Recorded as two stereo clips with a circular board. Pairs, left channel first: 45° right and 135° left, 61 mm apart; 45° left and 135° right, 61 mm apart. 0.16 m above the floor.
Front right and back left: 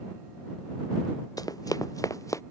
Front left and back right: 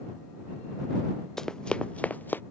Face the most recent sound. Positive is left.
turn(degrees=-10)